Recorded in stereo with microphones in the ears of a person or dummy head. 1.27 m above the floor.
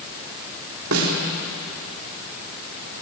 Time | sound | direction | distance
0.9 | a snare drum | 80° right | 3.5 m